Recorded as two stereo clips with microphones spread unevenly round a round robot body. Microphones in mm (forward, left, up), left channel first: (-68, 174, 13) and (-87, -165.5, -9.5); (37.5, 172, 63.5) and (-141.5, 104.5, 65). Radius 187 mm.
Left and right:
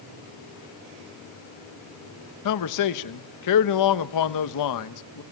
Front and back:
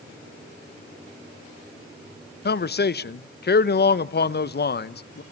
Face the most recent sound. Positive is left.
turn(degrees=50)